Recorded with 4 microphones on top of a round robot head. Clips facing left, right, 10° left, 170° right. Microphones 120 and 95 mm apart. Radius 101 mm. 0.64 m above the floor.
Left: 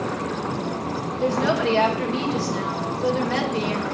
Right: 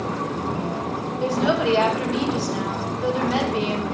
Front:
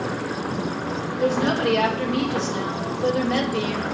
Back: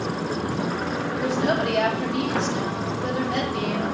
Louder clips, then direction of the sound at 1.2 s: Even, front 3 dB; 15° right.